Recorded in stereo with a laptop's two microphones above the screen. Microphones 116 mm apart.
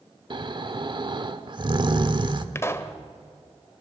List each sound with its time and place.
0.3 s snoring: 45° right (ahead or behind), 1.2 m
2.5 s a pop: 25° left (ahead or behind), 1.2 m